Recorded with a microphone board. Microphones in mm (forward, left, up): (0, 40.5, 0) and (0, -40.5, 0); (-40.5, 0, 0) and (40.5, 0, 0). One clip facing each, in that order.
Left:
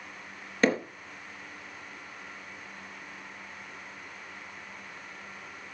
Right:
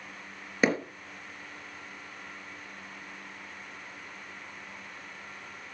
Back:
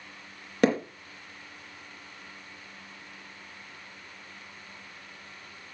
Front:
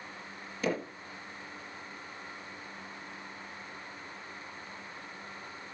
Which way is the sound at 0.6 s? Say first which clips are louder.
Left 1 dB, back 9 dB; 170° right.